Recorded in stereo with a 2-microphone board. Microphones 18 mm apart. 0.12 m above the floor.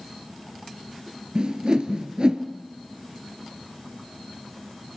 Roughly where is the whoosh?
Right.